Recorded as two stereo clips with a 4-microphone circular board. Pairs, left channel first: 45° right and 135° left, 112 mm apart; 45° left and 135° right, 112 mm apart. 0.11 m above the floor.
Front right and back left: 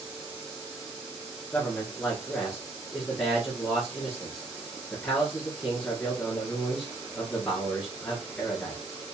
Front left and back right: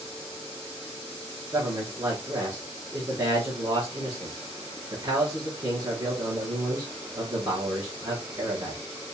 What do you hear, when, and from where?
1.5 s a man speaking: 115° right, 1.6 m